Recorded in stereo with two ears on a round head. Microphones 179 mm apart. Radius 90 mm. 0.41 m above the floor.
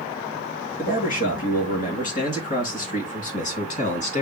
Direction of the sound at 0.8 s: 45° left (ahead or behind).